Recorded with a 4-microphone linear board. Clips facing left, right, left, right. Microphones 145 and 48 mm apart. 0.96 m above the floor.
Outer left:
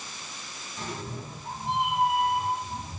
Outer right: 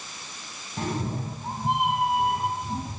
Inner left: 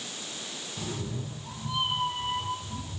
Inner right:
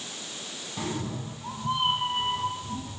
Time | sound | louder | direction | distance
0.8 | a cat meowing | outer right 7 dB, inner right 4 dB | 60° right (ahead or behind) | 3.5 m